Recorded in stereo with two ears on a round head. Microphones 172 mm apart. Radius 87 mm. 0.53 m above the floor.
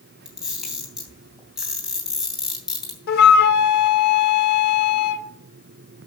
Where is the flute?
60° left (ahead or behind), 1.0 m.